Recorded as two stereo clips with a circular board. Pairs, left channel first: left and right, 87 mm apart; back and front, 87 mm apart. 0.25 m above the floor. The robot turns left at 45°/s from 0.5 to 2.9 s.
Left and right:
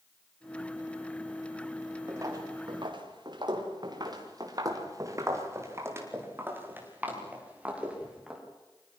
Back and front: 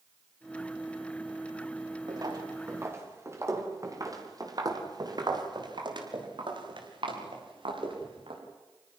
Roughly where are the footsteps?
Ahead right.